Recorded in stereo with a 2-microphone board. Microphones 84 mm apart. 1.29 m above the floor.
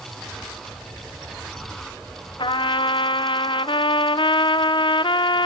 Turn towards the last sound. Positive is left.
turn(degrees=75)  # may be behind; listen again after turning